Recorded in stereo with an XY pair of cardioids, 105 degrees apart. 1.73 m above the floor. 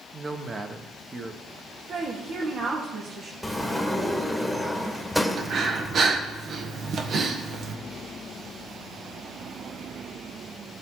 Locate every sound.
0.1 s a man speaking: 30° right, 1.5 m
1.9 s a woman speaking: 65° right, 2.5 m
3.4 s a sliding door: straight ahead, 1.6 m
5.4 s breathing: 55° right, 1.3 m